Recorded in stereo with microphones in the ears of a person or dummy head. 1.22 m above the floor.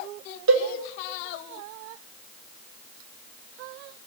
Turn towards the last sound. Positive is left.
turn(degrees=-75)  # may be behind; listen again after turning